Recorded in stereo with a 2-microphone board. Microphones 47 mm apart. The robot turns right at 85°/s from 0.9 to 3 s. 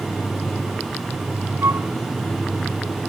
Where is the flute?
85° right; by 1.9 s 70° right (ahead or behind).